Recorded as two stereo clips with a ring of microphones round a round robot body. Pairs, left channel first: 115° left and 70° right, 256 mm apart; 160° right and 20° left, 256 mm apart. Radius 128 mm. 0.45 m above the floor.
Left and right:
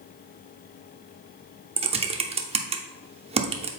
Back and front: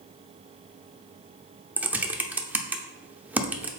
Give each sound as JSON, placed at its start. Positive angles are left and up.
{"t": 1.8, "sound": "typing on a keyboard", "azimuth_deg": -55, "distance_m": 0.6}